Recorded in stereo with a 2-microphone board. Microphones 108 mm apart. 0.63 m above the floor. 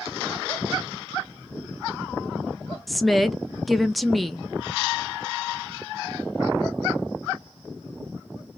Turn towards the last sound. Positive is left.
turn(degrees=0)  # may be behind; listen again after turning